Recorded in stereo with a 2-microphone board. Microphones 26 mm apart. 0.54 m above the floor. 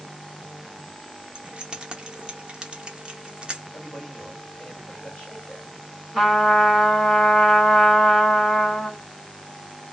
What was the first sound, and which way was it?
Keys jangling, 30° right (ahead or behind).